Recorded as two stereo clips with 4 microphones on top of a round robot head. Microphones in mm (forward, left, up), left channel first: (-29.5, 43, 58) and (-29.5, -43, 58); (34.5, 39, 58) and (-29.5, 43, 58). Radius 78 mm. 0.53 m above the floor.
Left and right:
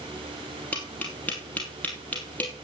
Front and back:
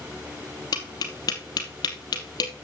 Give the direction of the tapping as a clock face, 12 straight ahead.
12 o'clock.